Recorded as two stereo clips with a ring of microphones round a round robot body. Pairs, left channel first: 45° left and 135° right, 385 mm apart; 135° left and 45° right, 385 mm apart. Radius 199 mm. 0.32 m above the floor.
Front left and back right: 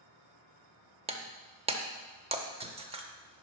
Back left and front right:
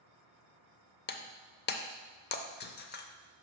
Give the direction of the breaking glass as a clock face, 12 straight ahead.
6 o'clock.